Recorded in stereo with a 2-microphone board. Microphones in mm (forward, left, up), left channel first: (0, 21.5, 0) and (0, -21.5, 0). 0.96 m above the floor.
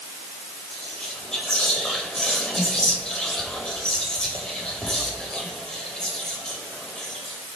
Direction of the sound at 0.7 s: 15° left (ahead or behind).